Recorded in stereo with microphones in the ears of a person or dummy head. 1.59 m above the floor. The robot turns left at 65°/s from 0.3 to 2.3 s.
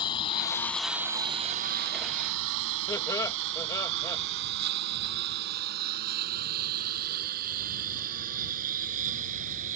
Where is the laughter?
15° left (ahead or behind).